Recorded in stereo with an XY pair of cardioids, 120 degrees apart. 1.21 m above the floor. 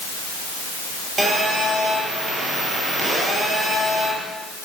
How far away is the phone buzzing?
About 10 m.